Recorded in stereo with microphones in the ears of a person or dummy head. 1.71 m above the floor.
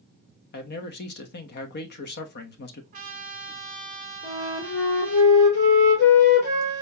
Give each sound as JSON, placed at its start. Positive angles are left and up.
{"t": 0.5, "sound": "a man speaking", "side_deg": 55, "distance_m": 0.7}
{"t": 2.9, "sound": "a trumpet", "side_deg": -45, "distance_m": 0.9}
{"t": 4.2, "sound": "a flute", "side_deg": 70, "distance_m": 3.0}